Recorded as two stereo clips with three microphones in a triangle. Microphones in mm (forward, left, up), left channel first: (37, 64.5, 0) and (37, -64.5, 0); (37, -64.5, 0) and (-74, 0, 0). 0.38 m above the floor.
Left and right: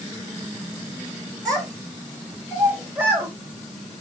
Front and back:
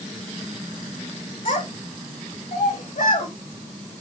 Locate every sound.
1.4 s a child speaking: 25° right, 4.5 m; by 3.3 s 15° right, 5 m